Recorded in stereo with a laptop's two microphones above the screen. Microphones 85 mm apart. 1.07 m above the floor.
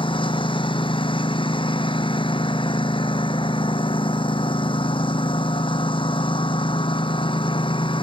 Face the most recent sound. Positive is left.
turn(degrees=80)